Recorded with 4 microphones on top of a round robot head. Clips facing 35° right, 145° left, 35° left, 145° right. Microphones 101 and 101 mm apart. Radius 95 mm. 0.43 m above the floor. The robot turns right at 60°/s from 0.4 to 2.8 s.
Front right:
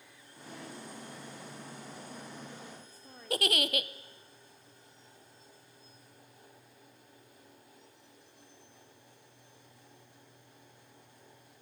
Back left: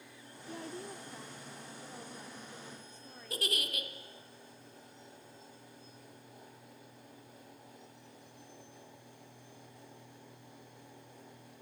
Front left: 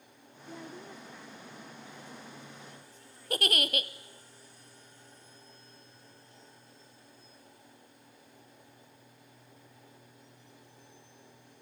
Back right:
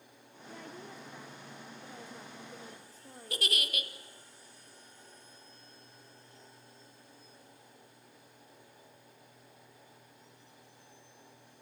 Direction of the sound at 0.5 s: 100° left.